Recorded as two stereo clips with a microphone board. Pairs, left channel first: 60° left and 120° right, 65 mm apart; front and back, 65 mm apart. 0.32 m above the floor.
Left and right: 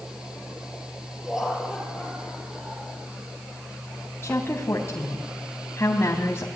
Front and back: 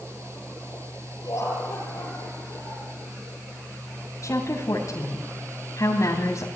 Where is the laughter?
35° right, 8.5 m; by 2.9 s 30° right, 9.5 m.